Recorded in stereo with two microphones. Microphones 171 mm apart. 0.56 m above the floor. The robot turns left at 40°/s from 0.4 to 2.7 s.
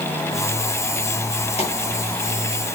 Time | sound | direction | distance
1.6 | a pop | 35° left (ahead or behind) | 6 m